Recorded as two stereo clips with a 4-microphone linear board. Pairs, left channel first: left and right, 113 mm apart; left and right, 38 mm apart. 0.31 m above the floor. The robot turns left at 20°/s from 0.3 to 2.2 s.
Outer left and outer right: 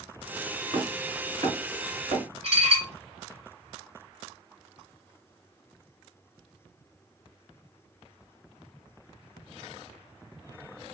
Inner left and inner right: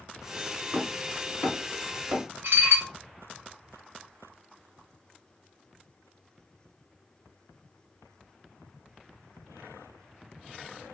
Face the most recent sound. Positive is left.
turn(degrees=-70)  # may be behind; listen again after turning